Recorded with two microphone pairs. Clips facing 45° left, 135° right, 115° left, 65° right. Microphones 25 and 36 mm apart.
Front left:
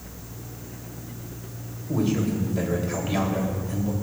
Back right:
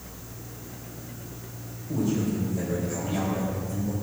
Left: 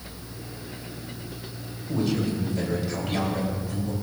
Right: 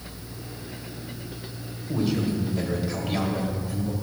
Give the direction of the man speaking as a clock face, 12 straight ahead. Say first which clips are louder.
Front left 2 dB, even; 11 o'clock.